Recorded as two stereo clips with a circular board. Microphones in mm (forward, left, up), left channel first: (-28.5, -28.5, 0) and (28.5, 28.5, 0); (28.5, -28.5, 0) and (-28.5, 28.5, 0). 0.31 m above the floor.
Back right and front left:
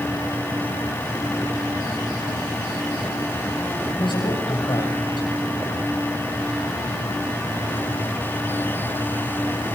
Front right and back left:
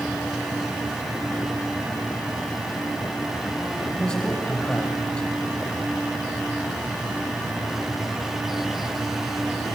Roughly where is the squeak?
No squeak in this recording.